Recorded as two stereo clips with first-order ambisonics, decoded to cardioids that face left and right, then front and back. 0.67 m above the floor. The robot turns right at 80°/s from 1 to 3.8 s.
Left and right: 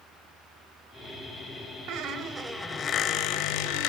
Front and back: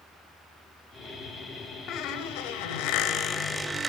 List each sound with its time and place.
1.9 s a squeak: 50° right, 1.5 m; by 3.9 s 100° left, 1.5 m